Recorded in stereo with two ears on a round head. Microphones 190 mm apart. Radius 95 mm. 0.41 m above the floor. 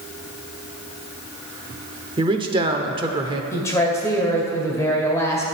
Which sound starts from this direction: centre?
A woman speaking, at 3.5 s.